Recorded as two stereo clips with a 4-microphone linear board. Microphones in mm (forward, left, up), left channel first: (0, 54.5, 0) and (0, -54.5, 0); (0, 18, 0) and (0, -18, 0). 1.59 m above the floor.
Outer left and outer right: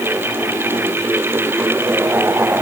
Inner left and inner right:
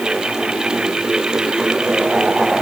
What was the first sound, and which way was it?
Only background noise.